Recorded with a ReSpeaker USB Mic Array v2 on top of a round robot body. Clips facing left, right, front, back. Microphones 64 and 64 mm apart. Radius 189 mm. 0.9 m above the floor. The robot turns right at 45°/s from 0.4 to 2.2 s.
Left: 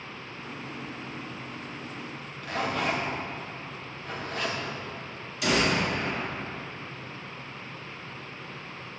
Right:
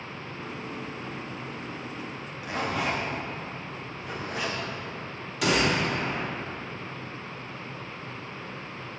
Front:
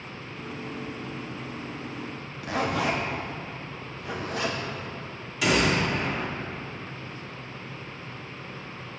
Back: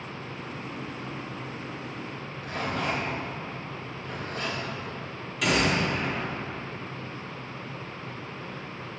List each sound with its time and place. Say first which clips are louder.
2.4 s a zipper: even, front 4 dB; 10° right, 0.7 m
5.4 s a gunshot: right 1 dB, front 1 dB; 90° right, 2.5 m